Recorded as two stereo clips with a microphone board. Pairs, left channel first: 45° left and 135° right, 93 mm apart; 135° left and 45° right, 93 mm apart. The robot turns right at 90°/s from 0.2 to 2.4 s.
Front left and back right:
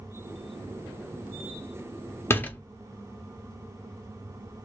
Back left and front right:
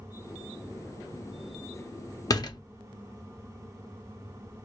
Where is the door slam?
100° left, 0.7 m; by 2.6 s 110° left, 0.7 m.